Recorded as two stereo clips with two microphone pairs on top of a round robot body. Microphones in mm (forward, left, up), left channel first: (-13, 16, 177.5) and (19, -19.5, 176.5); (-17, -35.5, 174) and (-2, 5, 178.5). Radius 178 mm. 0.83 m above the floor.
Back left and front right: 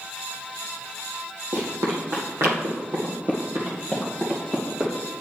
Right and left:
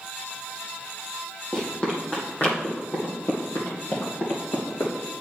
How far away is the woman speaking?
I don't hear a woman speaking.